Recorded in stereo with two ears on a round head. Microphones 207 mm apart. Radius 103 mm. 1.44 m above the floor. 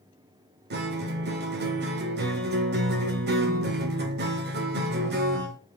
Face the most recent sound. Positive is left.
turn(degrees=-45)  # may be behind; listen again after turning